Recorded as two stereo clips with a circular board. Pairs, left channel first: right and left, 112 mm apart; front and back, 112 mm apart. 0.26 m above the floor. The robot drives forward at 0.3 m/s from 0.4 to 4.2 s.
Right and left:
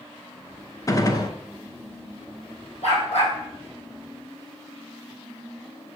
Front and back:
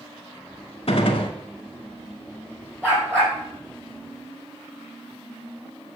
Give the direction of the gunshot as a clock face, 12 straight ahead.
1 o'clock.